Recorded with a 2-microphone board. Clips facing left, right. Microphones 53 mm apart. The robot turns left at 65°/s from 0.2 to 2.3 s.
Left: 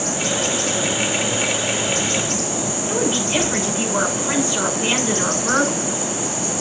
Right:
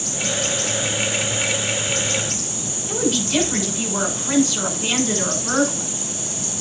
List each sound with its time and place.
2.9 s a woman speaking: 20° left (ahead or behind), 7 m